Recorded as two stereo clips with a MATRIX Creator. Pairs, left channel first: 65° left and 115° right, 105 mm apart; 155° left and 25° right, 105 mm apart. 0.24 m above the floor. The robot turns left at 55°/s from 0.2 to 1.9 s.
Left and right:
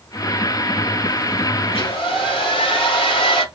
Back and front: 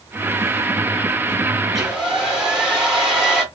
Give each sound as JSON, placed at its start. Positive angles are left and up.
{"t": 1.7, "sound": "a hair dryer", "azimuth_deg": 70, "distance_m": 1.2}